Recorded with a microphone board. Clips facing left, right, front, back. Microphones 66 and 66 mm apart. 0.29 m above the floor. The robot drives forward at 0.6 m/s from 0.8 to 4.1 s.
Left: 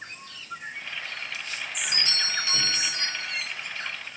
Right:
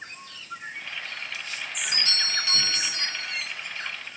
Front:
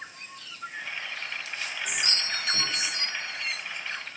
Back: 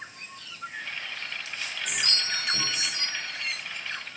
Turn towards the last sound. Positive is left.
turn(degrees=155)